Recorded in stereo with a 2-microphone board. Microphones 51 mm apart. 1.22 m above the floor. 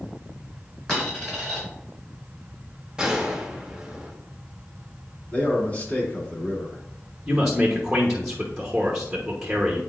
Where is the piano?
No piano in this recording.